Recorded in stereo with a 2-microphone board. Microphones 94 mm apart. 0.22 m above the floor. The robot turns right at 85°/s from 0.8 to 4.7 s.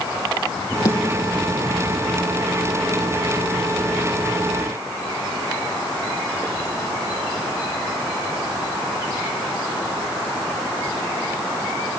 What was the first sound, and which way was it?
A snare drum, 40° left (ahead or behind).